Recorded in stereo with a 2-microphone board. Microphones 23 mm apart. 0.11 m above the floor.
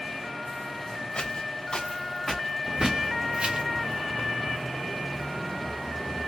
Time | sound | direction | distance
1.1 | footsteps | 50° left (ahead or behind) | 0.9 m
2.6 | a bird | 25° right (ahead or behind) | 1.6 m